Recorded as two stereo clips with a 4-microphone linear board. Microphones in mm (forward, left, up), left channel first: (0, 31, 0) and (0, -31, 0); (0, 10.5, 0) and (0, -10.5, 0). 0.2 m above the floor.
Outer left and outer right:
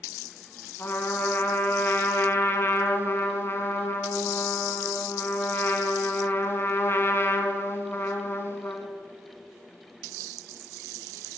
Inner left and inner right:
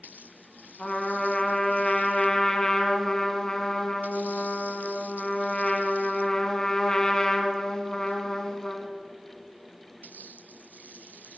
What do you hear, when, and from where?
0.8 s a trumpet: 40° left (ahead or behind), 1.8 m